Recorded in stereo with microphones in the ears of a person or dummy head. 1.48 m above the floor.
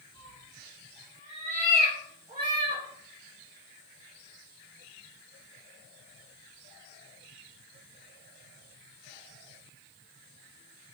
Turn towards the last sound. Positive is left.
turn(degrees=-25)  # may be behind; listen again after turning